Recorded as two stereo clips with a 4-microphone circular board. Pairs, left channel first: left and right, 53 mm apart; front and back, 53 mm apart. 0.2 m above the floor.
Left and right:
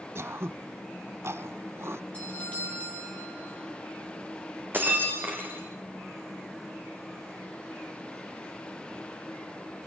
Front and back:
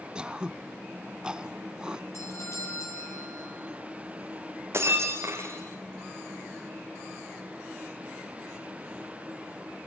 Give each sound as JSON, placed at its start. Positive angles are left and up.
{"t": 0.1, "sound": "throat clearing", "azimuth_deg": -110, "distance_m": 0.7}
{"t": 2.1, "sound": "a doorbell", "azimuth_deg": 25, "distance_m": 7.0}
{"t": 4.7, "sound": "breaking glass", "azimuth_deg": -145, "distance_m": 4.5}